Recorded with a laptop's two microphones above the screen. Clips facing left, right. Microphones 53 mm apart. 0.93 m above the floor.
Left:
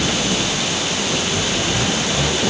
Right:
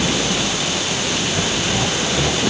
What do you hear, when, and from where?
Only background noise.